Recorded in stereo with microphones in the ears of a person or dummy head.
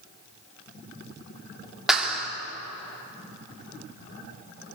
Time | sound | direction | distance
1.9 | a clap | centre (ahead or behind) | 2.5 m